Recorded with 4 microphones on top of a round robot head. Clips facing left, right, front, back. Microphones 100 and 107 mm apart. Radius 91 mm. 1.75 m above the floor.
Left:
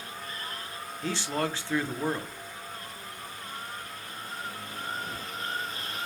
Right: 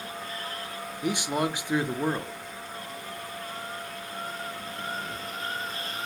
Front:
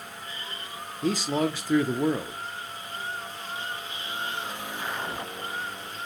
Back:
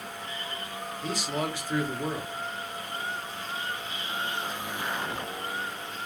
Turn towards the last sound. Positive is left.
turn(degrees=-15)